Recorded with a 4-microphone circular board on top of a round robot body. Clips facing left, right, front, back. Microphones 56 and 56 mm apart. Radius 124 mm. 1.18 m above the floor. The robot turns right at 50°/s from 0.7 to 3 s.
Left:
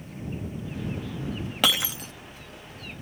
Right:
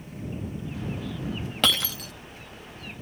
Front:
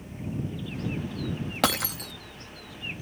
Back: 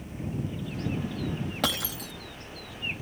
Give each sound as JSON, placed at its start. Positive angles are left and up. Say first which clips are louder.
{"t": 1.6, "sound": "breaking glass", "louder": "even, front 6 dB", "azimuth_deg": 10}